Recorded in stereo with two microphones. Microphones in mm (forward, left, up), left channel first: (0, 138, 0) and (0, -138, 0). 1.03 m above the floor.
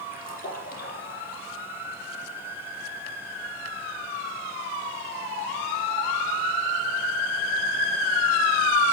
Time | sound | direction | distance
0.1 | a splash | 30° left (ahead or behind) | 5.5 m